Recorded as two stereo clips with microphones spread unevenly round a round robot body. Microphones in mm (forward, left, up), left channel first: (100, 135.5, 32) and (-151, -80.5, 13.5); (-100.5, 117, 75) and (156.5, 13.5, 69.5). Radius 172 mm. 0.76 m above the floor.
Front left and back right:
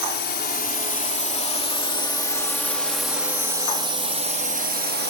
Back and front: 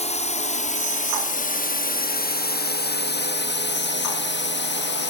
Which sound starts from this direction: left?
A drone, at 0.0 s.